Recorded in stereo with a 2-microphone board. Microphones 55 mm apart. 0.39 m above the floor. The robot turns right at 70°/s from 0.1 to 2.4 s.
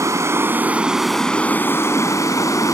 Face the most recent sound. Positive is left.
turn(degrees=90)